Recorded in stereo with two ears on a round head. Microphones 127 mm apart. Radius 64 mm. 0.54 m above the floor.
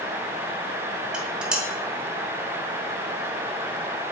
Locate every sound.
1.1 s dishes clattering: 5° right (ahead or behind), 1.3 m